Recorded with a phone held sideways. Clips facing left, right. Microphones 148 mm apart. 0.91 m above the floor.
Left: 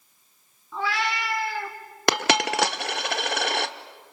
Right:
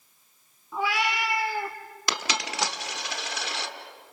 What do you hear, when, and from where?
0.7 s a cat meowing: 15° right (ahead or behind), 2.5 m
2.1 s a dropped coin: 65° left (ahead or behind), 0.9 m